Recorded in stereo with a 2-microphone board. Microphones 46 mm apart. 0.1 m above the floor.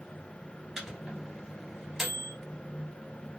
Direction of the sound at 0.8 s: 10° right (ahead or behind).